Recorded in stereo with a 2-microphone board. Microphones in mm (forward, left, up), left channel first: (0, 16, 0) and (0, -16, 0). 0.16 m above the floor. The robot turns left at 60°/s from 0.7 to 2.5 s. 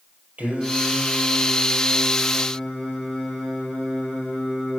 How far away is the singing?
About 5 m.